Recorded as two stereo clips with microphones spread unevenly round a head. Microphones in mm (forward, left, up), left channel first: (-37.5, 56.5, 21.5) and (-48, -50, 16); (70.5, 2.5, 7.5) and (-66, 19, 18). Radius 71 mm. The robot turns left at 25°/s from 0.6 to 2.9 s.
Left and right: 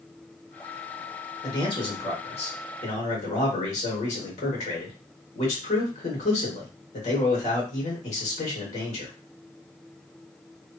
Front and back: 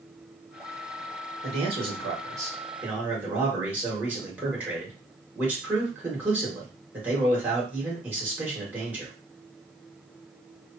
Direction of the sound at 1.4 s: 130° left.